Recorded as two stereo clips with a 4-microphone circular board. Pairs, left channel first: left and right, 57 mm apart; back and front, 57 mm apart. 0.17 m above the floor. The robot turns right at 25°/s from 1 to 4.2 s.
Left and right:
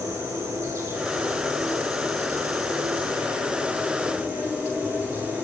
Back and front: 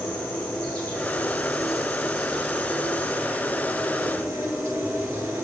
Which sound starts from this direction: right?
An insect, at 0.0 s.